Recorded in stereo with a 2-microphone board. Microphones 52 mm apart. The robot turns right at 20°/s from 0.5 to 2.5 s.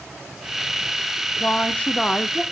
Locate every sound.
1.4 s a woman speaking: 30° left (ahead or behind), 0.8 m; by 2.4 s 15° left (ahead or behind), 0.8 m